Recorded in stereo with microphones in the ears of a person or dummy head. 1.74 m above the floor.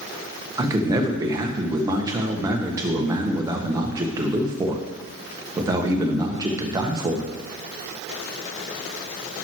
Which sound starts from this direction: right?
A man speaking, at 0.6 s.